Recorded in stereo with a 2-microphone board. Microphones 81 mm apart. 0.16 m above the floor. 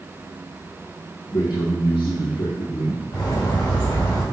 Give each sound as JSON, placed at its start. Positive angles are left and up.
{"t": 1.3, "sound": "a man speaking", "side_deg": 65, "distance_m": 3.0}
{"t": 3.1, "sound": "a bird", "side_deg": 45, "distance_m": 3.5}